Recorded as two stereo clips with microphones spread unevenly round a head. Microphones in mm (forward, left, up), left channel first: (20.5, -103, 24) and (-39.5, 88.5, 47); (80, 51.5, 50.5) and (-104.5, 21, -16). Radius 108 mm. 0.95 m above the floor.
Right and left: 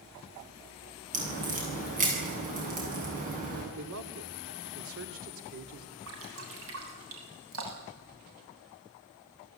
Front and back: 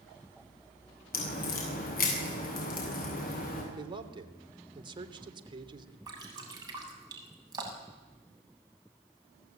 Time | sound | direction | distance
1.1 | a crack | 55° left | 9 m
3.8 | a man speaking | 125° left | 2.5 m
6.1 | dripping | 120° left | 7 m